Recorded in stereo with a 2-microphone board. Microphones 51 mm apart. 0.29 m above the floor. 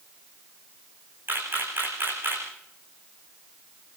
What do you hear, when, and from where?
1.3 s a camera shutter: 45° right (ahead or behind), 10 m